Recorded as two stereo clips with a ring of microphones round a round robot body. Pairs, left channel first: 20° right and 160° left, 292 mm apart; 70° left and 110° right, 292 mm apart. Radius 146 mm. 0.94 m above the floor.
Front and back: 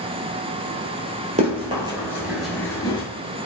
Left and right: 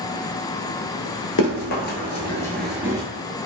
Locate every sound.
1.4 s running footsteps: 95° left, 1.3 m; by 3.0 s 65° right, 0.9 m